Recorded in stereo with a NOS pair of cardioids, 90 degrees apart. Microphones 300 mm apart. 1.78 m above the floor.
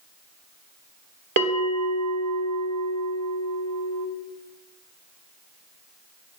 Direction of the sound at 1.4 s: 60° right.